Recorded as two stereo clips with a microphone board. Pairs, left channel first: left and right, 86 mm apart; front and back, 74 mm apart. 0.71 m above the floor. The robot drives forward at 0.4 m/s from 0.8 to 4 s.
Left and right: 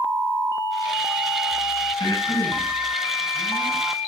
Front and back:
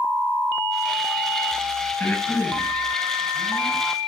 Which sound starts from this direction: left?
Breathing, at 2.0 s.